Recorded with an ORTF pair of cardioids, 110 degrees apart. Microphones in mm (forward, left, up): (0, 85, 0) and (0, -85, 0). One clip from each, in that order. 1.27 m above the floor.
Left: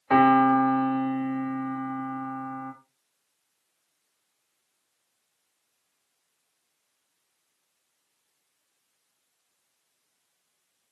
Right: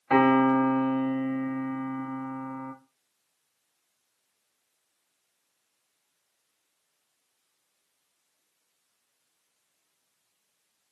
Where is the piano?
25° left, 1.7 m.